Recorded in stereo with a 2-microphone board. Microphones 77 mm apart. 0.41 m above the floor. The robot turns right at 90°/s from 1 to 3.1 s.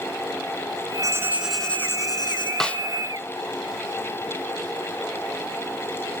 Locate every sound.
1.0 s writing: 45° right, 2.5 m; by 2.5 s 85° left, 2.5 m
2.6 s a snare drum: 5° left (ahead or behind), 0.6 m; by 2.8 s 25° left (ahead or behind), 0.6 m